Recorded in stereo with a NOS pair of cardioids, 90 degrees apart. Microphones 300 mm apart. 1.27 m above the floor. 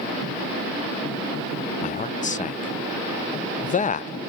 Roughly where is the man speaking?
Ahead left.